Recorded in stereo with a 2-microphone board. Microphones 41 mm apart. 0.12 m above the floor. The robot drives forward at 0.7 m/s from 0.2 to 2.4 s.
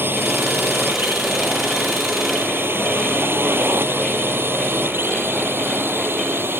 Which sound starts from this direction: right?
A drone, at 0.0 s.